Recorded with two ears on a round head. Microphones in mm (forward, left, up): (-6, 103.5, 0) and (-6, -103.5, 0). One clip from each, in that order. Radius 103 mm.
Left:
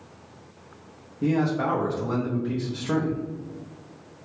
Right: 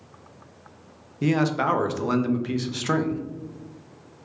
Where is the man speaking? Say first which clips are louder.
Right 2 dB; 65° right (ahead or behind), 0.5 m.